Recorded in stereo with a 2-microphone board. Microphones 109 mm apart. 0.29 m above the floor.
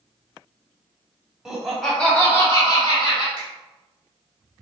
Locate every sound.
1.4 s laughter: 5° right (ahead or behind), 1.5 m; by 3.3 s 50° left (ahead or behind), 1.3 m
3.4 s a finger snap: 45° left (ahead or behind), 1.5 m